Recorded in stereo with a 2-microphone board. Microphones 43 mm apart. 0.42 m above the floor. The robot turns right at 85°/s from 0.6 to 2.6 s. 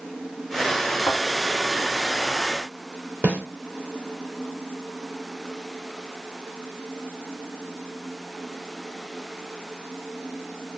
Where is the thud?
80° left, 1.7 m.